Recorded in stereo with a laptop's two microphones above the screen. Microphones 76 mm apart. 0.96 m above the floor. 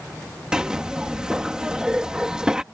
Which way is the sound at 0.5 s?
10° right (ahead or behind).